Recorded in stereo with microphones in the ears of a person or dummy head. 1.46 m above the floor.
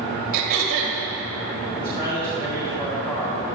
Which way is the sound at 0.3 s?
50° right (ahead or behind).